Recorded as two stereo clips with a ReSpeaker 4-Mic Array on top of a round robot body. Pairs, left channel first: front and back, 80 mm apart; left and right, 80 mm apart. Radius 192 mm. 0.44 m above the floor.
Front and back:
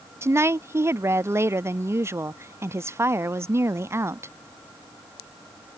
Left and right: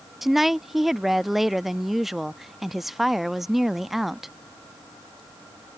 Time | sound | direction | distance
0.2 | a woman speaking | 175° right | ?